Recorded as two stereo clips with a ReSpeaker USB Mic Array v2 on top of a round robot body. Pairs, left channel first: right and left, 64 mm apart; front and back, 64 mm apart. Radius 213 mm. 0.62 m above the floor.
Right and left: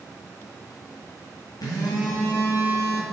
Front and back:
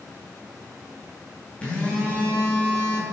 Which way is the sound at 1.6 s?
75° right.